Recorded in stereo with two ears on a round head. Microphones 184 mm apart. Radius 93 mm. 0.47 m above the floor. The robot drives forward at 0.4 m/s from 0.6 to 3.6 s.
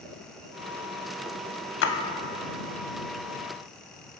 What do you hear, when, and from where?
1.8 s a splash: 65° left (ahead or behind), 0.5 m; by 1.9 s 60° left (ahead or behind), 0.5 m